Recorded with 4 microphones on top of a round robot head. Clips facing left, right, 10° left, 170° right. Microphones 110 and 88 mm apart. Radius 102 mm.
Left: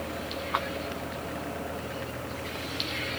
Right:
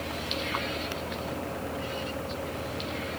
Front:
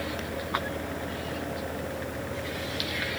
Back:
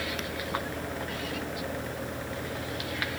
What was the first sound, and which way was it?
Only background noise.